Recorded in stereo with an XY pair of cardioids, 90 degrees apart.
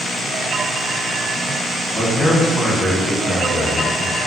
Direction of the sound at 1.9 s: 25° left.